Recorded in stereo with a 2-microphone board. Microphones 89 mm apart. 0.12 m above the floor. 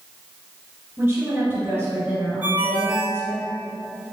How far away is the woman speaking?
About 1.9 m.